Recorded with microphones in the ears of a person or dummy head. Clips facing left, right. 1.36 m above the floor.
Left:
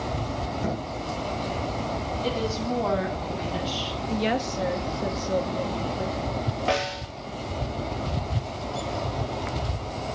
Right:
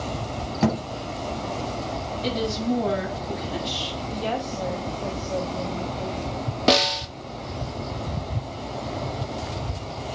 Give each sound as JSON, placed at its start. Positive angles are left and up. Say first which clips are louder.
{"t": 0.6, "sound": "a thud", "louder": "right 9 dB", "side_deg": -75, "distance_m": 4.5}
{"t": 2.2, "sound": "a woman speaking", "louder": "right 3 dB", "side_deg": -20, "distance_m": 9.5}
{"t": 4.1, "sound": "a woman speaking", "louder": "left 3 dB", "side_deg": 30, "distance_m": 2.0}
{"t": 6.7, "sound": "a snare drum", "louder": "right 7 dB", "side_deg": -50, "distance_m": 1.8}